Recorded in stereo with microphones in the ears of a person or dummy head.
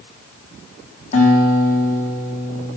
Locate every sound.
1.1 s a guitar: 35° left (ahead or behind), 3 m